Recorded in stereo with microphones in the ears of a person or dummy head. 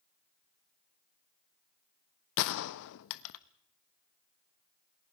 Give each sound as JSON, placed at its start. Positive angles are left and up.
{"t": 2.4, "sound": "a gunshot", "side_deg": 65, "distance_m": 1.0}